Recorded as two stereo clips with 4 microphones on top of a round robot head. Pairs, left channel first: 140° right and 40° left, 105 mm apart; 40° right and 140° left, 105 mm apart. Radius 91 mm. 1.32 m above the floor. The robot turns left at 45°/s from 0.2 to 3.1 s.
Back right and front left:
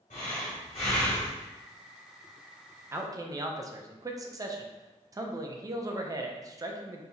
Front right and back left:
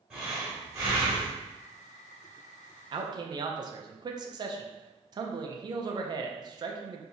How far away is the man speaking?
About 0.6 m.